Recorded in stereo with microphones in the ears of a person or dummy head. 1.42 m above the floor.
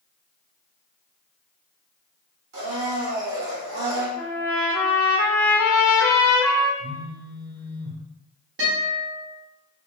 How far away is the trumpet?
About 0.7 m.